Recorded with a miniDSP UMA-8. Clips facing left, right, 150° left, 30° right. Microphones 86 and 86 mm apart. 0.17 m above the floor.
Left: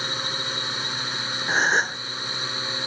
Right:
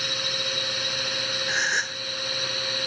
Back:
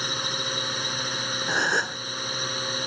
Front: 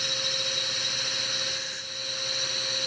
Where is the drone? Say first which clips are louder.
Left 1 dB, back 4 dB; 135° left; by 2.9 s 140° left.